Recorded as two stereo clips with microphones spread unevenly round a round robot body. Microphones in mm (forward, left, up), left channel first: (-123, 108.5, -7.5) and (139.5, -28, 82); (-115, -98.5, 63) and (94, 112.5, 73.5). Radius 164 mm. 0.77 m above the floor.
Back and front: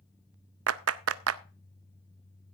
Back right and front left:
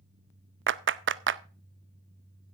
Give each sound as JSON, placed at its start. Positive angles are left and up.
{"t": 0.7, "sound": "a clap", "azimuth_deg": 15, "distance_m": 0.7}